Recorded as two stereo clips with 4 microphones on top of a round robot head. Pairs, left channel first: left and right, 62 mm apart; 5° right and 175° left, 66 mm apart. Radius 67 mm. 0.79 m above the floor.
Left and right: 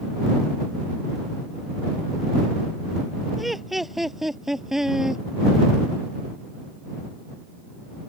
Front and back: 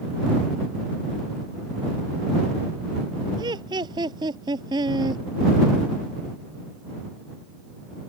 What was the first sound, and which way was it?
Laughter, straight behind.